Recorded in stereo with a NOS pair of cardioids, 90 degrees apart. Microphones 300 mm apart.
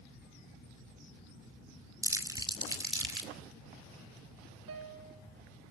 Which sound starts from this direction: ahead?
Crumpling, at 2.0 s.